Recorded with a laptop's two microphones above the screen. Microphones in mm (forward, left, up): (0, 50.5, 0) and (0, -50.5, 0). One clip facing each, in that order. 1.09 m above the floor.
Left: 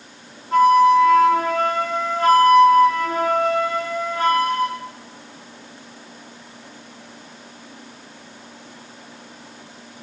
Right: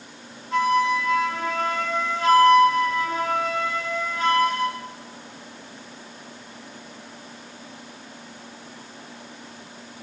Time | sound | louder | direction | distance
0.5 | a flute | left 8 dB | 45° left (ahead or behind) | 0.5 m